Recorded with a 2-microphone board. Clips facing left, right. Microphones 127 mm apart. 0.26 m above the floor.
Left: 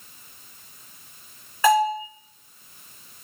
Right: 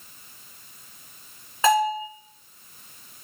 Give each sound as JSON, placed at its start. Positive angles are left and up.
{"t": 1.6, "sound": "a bell", "side_deg": -25, "distance_m": 2.5}